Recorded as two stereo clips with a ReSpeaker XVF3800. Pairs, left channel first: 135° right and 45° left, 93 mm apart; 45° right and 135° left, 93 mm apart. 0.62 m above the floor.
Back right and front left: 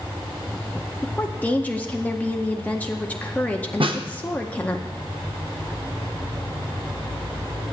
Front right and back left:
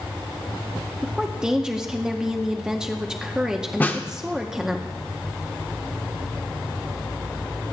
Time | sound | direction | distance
1.0 | a woman speaking | 160° right | 0.6 m
3.8 | a snare drum | 25° left | 0.7 m